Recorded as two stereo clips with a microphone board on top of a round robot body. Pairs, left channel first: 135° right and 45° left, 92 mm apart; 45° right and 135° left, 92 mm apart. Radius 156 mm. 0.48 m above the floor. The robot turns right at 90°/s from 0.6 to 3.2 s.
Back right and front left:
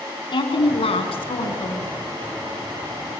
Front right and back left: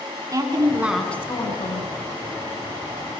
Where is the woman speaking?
170° right, 5.5 m; by 1.9 s 55° right, 5.5 m.